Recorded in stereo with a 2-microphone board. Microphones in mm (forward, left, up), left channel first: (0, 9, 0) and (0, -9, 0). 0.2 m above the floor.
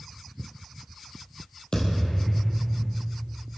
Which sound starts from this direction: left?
A thud, at 1.7 s.